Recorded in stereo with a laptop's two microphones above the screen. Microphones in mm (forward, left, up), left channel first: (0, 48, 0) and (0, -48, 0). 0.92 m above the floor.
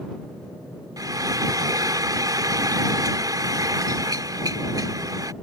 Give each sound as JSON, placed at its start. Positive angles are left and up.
{"t": 1.0, "sound": "frying", "side_deg": -40}